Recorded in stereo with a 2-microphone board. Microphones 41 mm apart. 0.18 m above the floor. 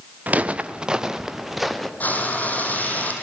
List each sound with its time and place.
0.3 s footsteps: 40° right (ahead or behind), 1.4 m; by 1.9 s centre (ahead or behind), 2.5 m
2.0 s frying: 40° left (ahead or behind), 4.5 m